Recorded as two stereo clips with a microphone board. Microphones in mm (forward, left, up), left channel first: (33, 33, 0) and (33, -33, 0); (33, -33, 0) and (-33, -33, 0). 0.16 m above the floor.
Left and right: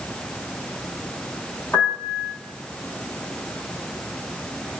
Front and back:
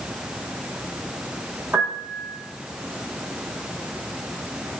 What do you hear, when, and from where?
1.7 s a piano: 135° left, 5.5 m